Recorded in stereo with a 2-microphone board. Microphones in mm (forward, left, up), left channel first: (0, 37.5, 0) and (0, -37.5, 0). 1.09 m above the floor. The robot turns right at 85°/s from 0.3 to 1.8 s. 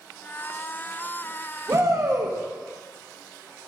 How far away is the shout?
About 1.4 m.